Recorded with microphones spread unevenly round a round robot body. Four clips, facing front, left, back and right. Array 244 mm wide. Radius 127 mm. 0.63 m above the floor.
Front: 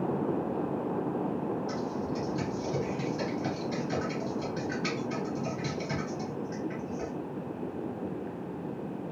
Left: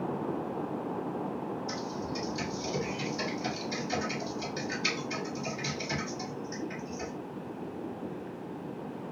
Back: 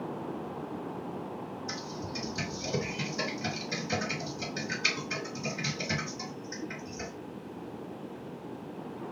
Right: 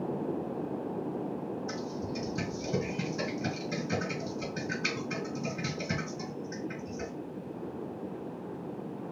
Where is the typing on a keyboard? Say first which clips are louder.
Even, front 6 dB; 115° right, 1.9 m.